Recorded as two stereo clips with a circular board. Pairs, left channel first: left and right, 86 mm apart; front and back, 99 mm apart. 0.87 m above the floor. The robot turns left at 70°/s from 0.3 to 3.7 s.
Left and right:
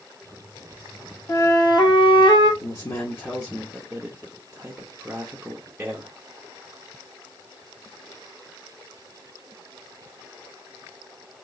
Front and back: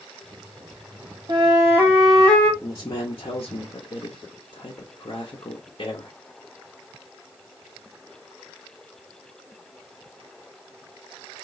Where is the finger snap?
No finger snap in this recording.